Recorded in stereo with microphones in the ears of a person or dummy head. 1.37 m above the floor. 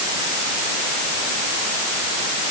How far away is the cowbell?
I don't hear a cowbell.